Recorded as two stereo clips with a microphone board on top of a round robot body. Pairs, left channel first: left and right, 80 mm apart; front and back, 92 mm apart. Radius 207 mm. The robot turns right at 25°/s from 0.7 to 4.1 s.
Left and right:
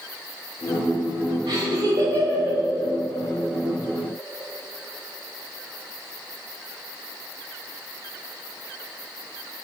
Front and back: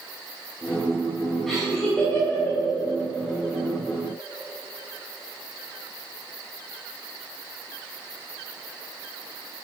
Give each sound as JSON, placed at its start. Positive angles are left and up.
{"t": 1.5, "sound": "laughter", "azimuth_deg": -85, "distance_m": 3.5}